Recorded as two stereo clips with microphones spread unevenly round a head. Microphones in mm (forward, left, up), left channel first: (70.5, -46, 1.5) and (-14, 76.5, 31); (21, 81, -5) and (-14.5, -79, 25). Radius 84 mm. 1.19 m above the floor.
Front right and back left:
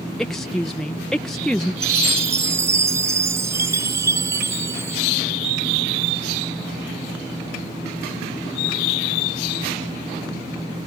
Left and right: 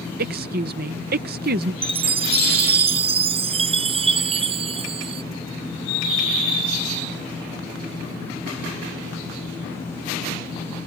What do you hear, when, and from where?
0.2 s a woman speaking: 135° right
1.8 s a chime: 160° right